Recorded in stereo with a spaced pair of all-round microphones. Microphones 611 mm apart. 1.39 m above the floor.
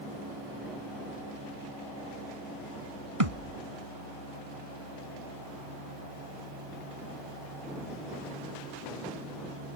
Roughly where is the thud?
Right.